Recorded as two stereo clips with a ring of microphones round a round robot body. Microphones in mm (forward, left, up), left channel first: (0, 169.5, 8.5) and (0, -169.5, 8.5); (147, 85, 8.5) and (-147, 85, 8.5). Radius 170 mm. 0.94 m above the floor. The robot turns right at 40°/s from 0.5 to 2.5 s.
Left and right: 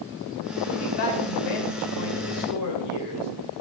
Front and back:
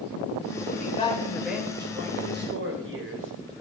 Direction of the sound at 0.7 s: 55° left.